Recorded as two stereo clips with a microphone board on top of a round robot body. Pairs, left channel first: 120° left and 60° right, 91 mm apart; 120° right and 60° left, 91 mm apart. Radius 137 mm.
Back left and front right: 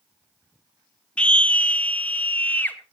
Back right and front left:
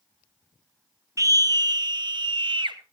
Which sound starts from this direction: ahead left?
A scream, at 1.2 s.